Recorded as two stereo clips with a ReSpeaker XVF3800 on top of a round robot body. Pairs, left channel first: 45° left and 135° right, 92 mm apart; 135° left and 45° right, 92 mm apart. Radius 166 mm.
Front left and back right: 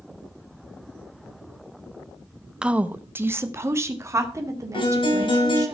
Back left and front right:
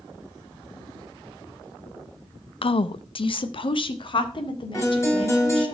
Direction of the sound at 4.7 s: 75° left.